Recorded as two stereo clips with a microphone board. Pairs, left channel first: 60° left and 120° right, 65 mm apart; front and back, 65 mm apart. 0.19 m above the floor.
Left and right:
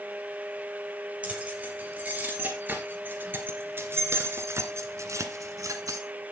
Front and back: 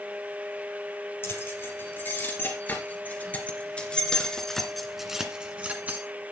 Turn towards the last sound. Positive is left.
turn(degrees=-125)